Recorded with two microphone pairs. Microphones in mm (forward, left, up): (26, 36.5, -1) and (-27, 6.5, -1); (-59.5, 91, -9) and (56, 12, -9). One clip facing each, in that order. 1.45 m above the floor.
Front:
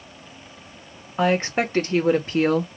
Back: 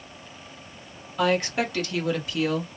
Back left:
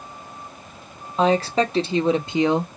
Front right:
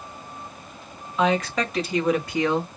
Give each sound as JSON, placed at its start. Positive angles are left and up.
{"t": 1.2, "sound": "a woman speaking", "azimuth_deg": 90, "distance_m": 1.6}